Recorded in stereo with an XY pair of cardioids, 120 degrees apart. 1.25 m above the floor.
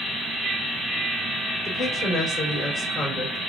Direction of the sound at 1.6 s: 35° left.